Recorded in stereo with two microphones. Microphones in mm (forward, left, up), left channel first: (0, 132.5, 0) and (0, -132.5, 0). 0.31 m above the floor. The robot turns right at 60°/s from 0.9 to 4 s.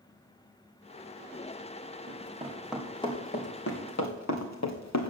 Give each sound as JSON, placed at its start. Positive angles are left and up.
{"t": 2.1, "sound": "running footsteps", "side_deg": -45, "distance_m": 3.0}